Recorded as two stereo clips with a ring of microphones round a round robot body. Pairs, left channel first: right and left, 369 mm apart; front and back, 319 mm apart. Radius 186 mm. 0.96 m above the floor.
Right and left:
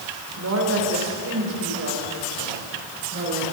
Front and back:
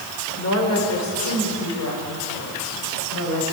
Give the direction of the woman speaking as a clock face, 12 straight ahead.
11 o'clock.